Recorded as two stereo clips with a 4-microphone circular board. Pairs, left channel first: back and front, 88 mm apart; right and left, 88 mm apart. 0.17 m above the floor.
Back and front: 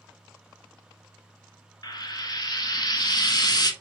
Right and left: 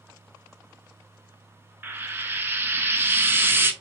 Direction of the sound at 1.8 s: 150° left.